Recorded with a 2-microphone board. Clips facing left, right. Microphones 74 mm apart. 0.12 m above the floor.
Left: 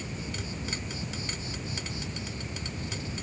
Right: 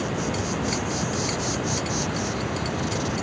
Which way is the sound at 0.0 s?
85° right.